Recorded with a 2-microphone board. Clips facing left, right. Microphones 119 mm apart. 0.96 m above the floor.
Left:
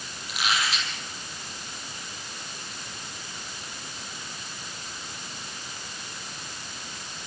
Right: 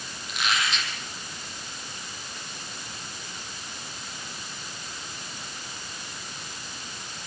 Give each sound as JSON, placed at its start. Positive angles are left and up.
{"t": 0.3, "sound": "a squeak", "side_deg": 0, "distance_m": 7.0}